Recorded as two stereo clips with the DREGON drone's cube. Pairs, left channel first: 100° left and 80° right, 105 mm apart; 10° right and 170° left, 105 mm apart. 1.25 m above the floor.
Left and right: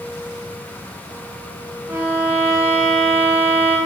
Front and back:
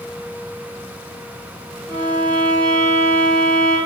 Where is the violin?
55° right, 0.9 m.